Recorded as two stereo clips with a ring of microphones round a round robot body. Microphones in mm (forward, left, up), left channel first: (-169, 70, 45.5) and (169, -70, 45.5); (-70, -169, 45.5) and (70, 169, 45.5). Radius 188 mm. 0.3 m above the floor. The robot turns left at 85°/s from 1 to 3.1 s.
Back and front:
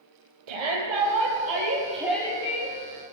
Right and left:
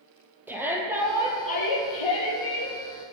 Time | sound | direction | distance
0.5 | a shout | 15° right | 9.5 m